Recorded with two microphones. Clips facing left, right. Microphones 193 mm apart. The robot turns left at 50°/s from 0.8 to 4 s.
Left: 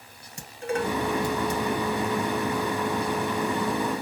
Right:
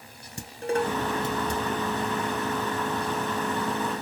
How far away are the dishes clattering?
About 1.2 m.